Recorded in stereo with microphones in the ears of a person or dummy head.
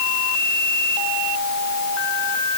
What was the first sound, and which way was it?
Only background noise.